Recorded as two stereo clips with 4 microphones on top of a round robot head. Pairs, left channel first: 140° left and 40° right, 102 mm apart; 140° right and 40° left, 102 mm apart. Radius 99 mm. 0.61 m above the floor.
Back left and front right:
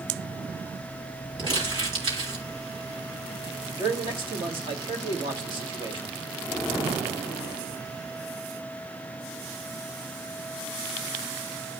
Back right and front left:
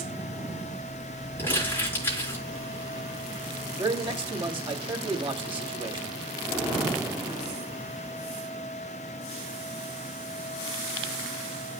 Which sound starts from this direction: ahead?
A man speaking, at 3.8 s.